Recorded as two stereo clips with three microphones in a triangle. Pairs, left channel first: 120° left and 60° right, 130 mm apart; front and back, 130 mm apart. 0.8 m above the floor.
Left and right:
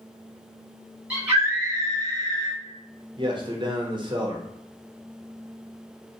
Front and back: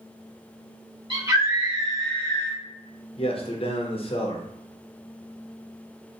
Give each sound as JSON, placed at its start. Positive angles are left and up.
{"t": 1.1, "sound": "a scream", "azimuth_deg": -130, "distance_m": 1.5}
{"t": 3.2, "sound": "a man speaking", "azimuth_deg": -20, "distance_m": 0.7}